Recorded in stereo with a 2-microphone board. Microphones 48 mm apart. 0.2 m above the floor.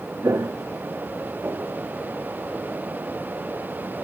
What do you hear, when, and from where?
0.2 s footsteps: 80° right, 1.0 m; by 1.8 s 50° right (ahead or behind), 1.7 m